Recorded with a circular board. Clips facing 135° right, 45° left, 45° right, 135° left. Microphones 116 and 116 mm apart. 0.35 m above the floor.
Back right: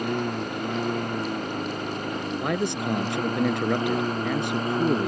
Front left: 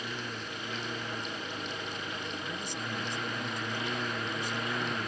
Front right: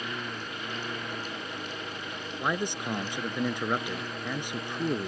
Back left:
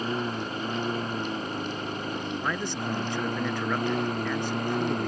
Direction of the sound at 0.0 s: 170° right.